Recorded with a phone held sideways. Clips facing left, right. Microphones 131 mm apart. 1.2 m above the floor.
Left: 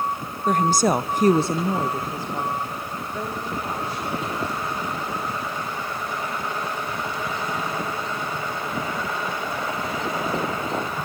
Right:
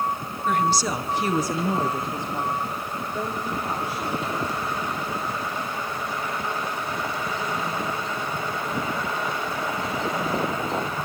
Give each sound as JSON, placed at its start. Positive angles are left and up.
{"t": 0.5, "sound": "a woman speaking", "side_deg": 40, "distance_m": 1.1}